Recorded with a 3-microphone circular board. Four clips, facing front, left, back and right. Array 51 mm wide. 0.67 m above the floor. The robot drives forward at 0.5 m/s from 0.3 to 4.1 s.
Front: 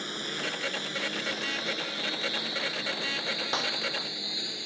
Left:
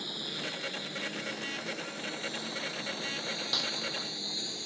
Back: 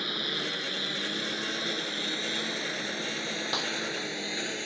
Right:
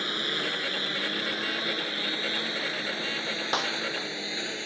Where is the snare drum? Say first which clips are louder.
Right 9 dB, front 2 dB; 80° right.